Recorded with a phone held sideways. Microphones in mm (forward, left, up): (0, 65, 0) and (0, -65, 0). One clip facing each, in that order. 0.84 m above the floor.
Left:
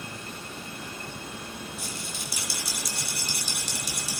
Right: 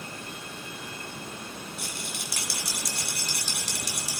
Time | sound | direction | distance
1.8 | a rattle | 75° right (ahead or behind) | 2.5 m